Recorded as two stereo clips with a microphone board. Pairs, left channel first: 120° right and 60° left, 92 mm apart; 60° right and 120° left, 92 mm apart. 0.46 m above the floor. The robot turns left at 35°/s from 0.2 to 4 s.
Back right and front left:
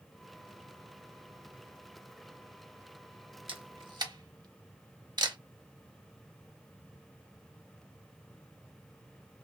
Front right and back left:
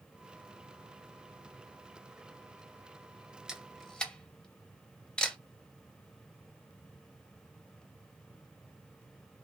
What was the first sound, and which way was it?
A camera shutter, 40° left.